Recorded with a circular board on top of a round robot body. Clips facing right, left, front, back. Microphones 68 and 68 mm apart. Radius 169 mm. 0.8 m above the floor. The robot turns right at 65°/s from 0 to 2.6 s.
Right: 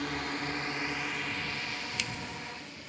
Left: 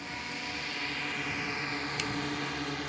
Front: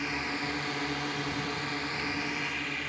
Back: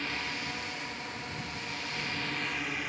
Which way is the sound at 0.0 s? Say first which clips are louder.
Right 5 dB, front 3 dB; 75° right.